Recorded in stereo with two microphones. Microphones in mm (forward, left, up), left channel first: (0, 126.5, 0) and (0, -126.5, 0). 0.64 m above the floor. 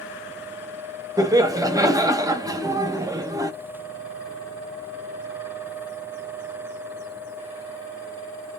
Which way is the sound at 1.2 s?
15° right (ahead or behind).